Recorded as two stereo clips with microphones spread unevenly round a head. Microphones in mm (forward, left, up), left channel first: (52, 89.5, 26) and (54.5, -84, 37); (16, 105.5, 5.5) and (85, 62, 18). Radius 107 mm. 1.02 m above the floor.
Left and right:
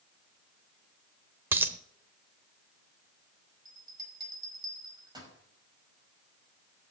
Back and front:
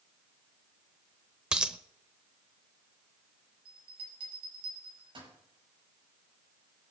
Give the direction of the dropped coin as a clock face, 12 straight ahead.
2 o'clock.